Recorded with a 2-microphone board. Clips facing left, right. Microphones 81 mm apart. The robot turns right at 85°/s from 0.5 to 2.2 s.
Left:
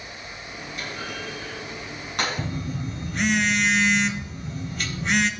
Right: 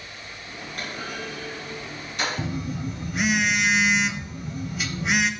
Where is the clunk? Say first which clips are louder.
Right 1 dB; 60° right (ahead or behind), 4.5 m; by 2.4 s 60° left (ahead or behind), 4.5 m.